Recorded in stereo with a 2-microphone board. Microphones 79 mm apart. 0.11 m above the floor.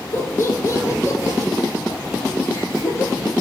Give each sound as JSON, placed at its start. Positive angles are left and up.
{"t": 0.1, "sound": "laughter", "side_deg": 30, "distance_m": 1.4}